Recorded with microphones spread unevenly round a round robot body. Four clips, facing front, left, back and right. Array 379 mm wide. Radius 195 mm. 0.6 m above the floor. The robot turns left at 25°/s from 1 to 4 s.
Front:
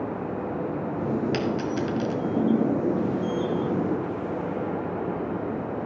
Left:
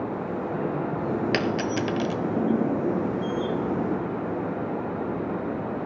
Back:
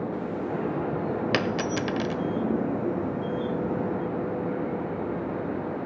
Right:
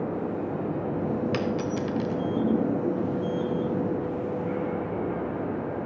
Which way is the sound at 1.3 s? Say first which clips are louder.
Left 2 dB, even; 160° left.